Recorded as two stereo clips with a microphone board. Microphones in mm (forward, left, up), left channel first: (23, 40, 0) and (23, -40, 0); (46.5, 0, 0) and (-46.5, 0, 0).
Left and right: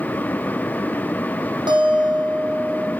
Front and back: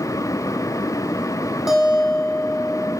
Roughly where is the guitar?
Right.